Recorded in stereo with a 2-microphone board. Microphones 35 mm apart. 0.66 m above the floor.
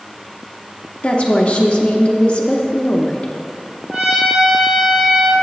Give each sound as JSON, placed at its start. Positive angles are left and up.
{"t": 1.0, "sound": "a woman speaking", "side_deg": 35, "distance_m": 0.7}
{"t": 3.9, "sound": "a trumpet", "side_deg": -30, "distance_m": 1.6}